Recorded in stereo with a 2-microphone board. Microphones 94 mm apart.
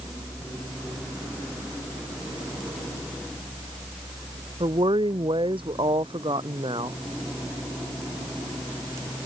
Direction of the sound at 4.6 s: 65° right (ahead or behind).